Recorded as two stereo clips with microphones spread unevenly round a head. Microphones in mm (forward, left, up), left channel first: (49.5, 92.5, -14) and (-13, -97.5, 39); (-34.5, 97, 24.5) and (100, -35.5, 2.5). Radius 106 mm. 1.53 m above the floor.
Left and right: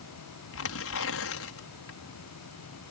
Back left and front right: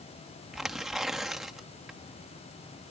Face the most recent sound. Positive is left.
turn(degrees=45)